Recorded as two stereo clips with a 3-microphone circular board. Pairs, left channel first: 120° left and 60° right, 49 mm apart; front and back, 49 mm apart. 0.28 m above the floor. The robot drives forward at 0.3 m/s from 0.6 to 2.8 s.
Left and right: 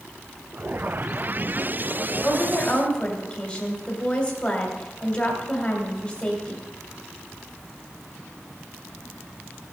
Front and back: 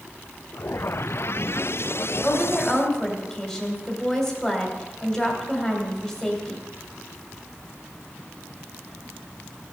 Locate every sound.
2.2 s a woman speaking: 65° left, 1.7 m; by 6.6 s 75° left, 1.6 m